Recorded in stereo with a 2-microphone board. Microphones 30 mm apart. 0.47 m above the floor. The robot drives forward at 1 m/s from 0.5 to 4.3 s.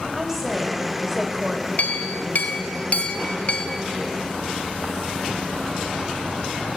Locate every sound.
0.1 s a woman speaking: 10° right (ahead or behind), 2.5 m; by 1.7 s 15° right (ahead or behind), 1.7 m
1.8 s a clink: 65° left (ahead or behind), 1.5 m; by 3.8 s 35° left (ahead or behind), 2.5 m